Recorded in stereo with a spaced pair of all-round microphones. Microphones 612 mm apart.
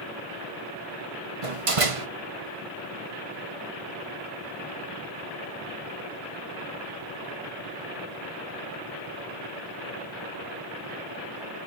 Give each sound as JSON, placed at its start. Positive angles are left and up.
{"t": 1.4, "sound": "a door slam", "side_deg": -60, "distance_m": 1.1}